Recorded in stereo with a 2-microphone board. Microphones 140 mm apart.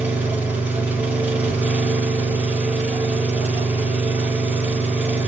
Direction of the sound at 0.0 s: 15° right (ahead or behind).